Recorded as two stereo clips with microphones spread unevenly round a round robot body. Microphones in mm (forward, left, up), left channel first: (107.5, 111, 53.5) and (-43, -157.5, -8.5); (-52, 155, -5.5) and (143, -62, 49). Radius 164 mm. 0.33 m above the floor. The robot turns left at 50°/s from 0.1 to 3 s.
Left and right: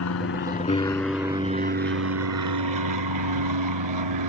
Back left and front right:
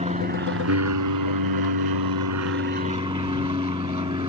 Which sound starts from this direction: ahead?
An aircraft, at 0.0 s.